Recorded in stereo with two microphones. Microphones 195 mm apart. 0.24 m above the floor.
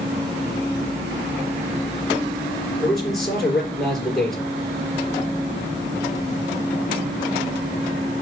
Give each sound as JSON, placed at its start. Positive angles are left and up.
{"t": 2.8, "sound": "a man speaking", "side_deg": 0, "distance_m": 5.0}